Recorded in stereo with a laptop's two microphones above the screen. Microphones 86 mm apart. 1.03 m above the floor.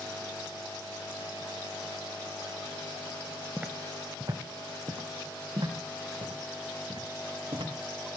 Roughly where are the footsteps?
Centre.